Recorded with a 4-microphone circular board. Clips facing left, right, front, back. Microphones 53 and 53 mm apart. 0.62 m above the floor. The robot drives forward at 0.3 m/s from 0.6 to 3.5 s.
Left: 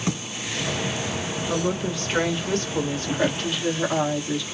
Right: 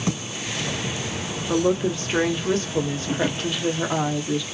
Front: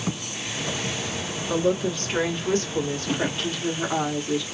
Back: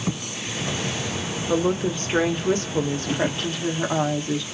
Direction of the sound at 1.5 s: 140° right.